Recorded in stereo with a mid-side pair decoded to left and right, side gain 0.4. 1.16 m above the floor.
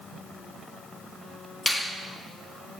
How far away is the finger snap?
About 1.7 m.